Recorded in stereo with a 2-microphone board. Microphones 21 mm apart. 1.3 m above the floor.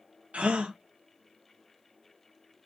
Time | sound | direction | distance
0.3 | a gasp | 75° right (ahead or behind) | 0.5 m